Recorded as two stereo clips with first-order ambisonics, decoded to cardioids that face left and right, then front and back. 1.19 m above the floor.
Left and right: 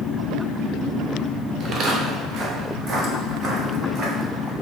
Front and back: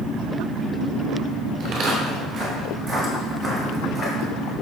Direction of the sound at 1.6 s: 140° right.